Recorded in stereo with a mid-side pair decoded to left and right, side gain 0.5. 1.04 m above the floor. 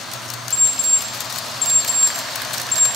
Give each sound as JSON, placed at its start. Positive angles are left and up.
{"t": 0.5, "sound": "an alarm clock", "azimuth_deg": 30, "distance_m": 1.0}